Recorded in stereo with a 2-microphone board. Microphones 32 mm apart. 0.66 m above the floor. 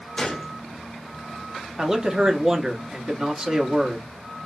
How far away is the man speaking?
About 0.9 m.